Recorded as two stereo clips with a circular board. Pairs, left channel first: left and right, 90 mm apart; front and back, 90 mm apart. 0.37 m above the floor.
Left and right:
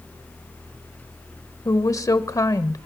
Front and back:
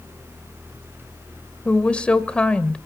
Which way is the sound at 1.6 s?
70° left.